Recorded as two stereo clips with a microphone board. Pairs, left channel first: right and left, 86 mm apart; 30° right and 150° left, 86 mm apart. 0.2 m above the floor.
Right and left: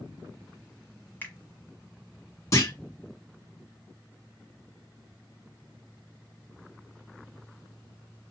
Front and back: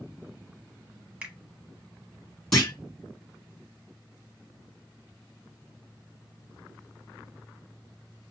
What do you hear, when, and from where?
1.2 s a finger snap: 140° right, 1.1 m
2.5 s a clunk: 110° right, 2 m